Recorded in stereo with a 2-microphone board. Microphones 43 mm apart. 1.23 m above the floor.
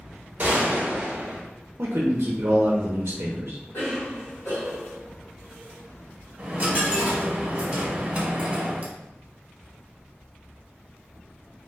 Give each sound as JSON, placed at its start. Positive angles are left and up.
{"t": 0.4, "sound": "a gunshot", "side_deg": -45, "distance_m": 0.8}
{"t": 1.8, "sound": "a man speaking", "side_deg": -65, "distance_m": 0.6}
{"t": 3.7, "sound": "a cough", "side_deg": 85, "distance_m": 1.6}
{"t": 6.4, "sound": "a dropped coin", "side_deg": -30, "distance_m": 0.8}